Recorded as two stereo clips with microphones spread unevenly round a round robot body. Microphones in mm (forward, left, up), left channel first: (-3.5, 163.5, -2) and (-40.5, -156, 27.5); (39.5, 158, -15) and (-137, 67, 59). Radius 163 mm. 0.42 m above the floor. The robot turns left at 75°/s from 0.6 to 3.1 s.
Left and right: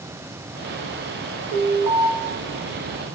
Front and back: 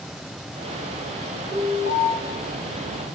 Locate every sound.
1.5 s an alarm: 45° right, 1.1 m; by 2.1 s 85° right, 1.1 m